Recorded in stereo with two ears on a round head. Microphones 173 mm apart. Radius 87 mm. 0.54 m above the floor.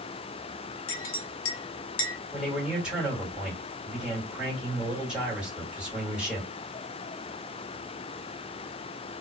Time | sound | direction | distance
0.9 | a clink | 75° left (ahead or behind) | 0.9 m
2.3 | a man speaking | 5° right (ahead or behind) | 1.9 m